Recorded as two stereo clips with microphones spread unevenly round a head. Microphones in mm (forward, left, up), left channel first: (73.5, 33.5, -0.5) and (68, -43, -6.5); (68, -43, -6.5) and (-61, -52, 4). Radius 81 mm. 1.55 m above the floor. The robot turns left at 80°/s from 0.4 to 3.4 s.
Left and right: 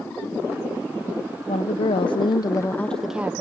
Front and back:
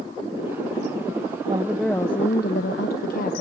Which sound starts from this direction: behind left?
A woman speaking, at 1.5 s.